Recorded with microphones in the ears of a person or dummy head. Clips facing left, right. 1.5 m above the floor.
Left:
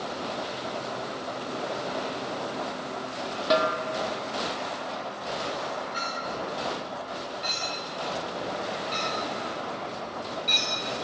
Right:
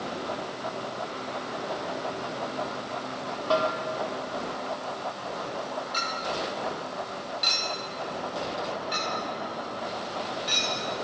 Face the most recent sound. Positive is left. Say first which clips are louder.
# left 1 dB
turn(degrees=-10)  # may be behind; listen again after turning